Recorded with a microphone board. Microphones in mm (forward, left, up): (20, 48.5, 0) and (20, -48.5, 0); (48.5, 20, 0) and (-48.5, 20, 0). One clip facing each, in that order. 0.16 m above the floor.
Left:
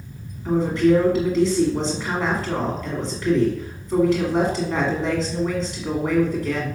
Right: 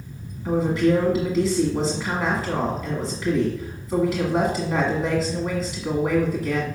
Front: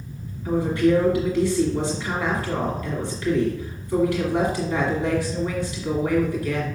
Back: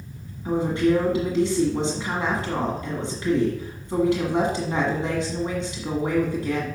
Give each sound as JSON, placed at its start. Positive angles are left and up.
{"t": 0.5, "sound": "a woman speaking", "azimuth_deg": -175, "distance_m": 1.5}